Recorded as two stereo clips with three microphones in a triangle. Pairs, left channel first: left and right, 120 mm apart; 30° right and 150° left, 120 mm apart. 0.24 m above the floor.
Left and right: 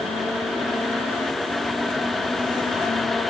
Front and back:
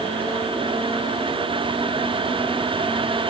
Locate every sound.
Only background noise.